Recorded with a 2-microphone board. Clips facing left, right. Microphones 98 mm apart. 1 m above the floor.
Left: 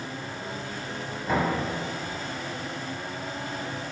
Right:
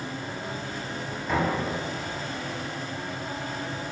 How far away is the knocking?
About 1.7 m.